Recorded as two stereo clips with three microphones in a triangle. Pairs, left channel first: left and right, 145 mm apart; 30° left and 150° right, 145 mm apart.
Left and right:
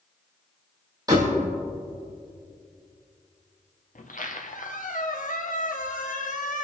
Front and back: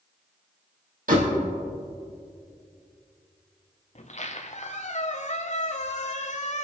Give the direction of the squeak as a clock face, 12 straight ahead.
10 o'clock.